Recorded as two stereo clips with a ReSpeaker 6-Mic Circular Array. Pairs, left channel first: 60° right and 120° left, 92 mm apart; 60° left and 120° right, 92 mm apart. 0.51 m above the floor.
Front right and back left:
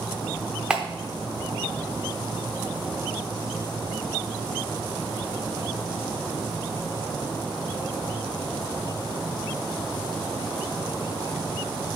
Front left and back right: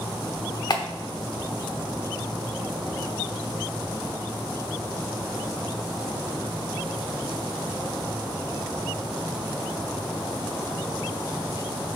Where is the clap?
45° left, 0.8 m.